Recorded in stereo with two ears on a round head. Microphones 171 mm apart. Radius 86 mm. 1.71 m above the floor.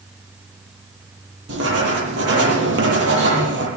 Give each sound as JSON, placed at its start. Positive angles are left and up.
{"t": 1.5, "sound": "writing", "side_deg": -70, "distance_m": 9.0}